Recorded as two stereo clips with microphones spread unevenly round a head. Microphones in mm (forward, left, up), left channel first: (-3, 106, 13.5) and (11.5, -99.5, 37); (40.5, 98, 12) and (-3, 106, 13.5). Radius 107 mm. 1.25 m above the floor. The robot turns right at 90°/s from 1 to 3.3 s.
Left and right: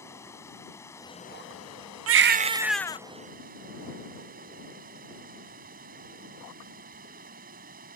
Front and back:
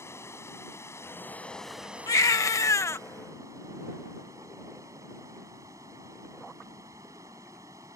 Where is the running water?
15° left; by 8.0 s 140° right.